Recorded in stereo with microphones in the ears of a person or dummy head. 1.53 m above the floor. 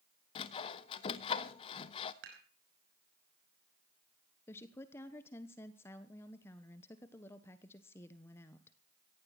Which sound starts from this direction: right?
Dishes clattering, at 2.2 s.